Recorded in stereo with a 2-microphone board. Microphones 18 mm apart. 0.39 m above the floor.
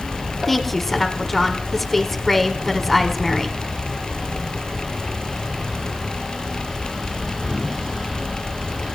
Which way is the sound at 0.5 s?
10° left (ahead or behind).